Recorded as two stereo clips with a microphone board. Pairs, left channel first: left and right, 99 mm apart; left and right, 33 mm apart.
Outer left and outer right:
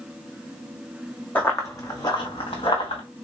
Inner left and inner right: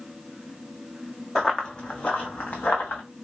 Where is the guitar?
I don't hear a guitar.